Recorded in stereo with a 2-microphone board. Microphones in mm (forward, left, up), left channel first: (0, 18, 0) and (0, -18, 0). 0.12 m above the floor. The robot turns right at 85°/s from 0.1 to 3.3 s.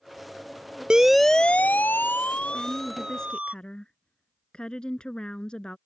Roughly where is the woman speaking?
Ahead.